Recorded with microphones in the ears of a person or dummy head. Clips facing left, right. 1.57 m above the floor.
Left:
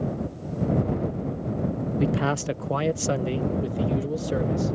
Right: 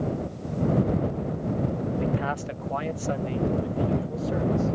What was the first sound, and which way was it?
A man speaking, 55° left (ahead or behind).